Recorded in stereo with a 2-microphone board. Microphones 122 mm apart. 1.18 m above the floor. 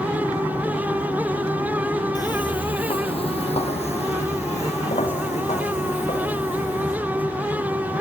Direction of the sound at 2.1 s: 35° left (ahead or behind).